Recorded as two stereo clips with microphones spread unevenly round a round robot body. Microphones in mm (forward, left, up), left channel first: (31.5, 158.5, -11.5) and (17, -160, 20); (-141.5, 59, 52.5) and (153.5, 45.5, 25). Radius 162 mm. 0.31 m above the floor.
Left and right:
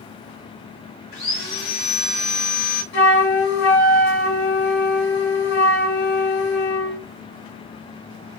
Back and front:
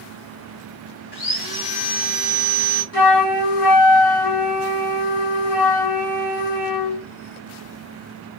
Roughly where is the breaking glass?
I don't hear breaking glass.